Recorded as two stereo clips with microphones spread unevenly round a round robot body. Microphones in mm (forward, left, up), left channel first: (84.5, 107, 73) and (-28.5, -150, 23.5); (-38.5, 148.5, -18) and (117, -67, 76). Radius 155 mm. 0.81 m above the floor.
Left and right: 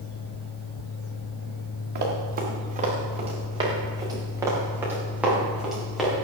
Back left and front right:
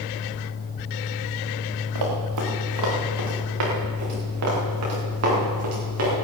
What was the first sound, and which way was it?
Running footsteps, 60° right.